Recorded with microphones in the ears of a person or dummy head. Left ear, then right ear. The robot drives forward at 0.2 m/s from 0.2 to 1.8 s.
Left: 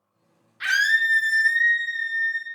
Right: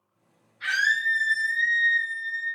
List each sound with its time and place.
0.6 s a scream: 70° left (ahead or behind), 0.8 m; by 2.5 s 55° left (ahead or behind), 0.9 m